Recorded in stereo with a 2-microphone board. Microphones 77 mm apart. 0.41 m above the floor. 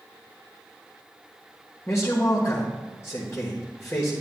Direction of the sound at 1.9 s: 40° left (ahead or behind).